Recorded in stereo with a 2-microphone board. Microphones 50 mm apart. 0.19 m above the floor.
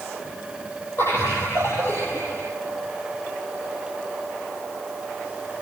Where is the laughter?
70° left (ahead or behind), 8.5 m; by 2.4 s 75° left (ahead or behind), 8 m.